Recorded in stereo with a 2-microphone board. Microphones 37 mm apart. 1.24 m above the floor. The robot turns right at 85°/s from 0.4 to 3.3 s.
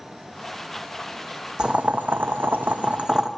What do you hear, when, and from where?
1.6 s boiling: 155° right, 0.8 m; by 3.3 s 15° right, 0.8 m